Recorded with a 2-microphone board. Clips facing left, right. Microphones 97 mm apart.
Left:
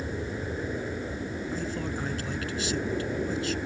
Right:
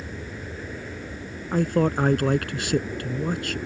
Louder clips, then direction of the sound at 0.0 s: Left 3 dB; 20° left (ahead or behind).